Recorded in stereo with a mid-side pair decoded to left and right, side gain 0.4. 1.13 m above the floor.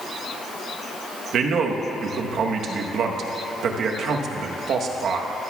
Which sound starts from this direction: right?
A man speaking, at 1.3 s.